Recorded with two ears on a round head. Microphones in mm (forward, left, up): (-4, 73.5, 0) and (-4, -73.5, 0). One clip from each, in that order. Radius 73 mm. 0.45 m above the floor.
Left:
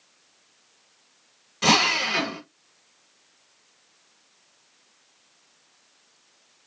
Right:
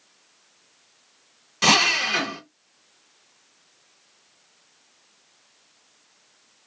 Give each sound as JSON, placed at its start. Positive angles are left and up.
{"t": 1.6, "sound": "a drill", "side_deg": -25, "distance_m": 1.0}